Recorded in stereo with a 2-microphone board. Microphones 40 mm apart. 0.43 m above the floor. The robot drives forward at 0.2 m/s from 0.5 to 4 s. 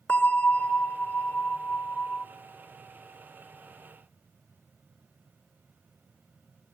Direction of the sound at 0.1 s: 40° left (ahead or behind).